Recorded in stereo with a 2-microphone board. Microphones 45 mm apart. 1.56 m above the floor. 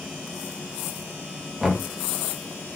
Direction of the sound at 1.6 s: Centre (ahead or behind).